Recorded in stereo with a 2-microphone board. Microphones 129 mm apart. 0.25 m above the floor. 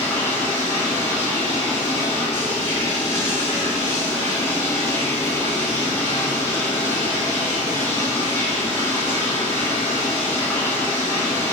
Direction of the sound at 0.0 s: 20° left (ahead or behind).